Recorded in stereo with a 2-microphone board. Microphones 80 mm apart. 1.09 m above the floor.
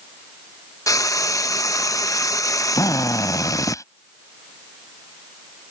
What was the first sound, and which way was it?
Frying, 45° left (ahead or behind).